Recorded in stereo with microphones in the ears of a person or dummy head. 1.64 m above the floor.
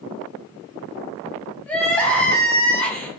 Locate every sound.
1.7 s crying: 10° left (ahead or behind), 0.6 m